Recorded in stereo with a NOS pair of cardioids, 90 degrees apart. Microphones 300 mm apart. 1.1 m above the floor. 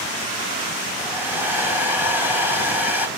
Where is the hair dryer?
5° right, 3.5 m.